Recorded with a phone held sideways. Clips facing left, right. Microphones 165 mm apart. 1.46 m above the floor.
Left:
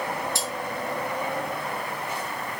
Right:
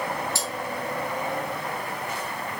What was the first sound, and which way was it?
Cutlery clinking, 15° left (ahead or behind).